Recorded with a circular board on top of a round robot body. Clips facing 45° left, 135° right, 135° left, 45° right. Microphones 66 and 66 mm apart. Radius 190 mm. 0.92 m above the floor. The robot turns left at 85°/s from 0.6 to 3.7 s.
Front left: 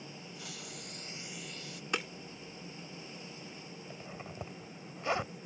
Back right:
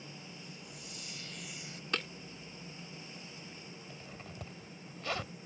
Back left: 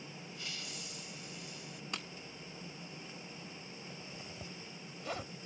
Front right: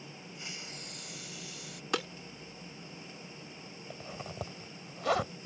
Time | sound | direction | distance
0.3 | a hiss | 25° left | ?
1.9 | breaking glass | 30° right | ?
3.9 | a zipper | 25° right | ?